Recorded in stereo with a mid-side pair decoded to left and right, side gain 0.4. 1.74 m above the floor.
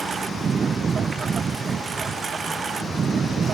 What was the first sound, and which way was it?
A lawn mower, 40° right.